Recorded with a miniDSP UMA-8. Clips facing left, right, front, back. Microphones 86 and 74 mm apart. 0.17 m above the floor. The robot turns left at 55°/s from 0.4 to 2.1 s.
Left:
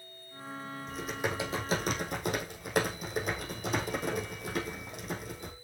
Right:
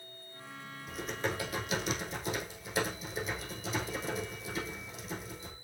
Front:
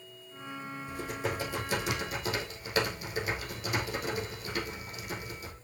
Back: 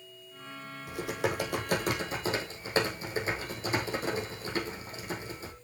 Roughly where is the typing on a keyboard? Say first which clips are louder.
Left 1 dB, back 4 dB; behind.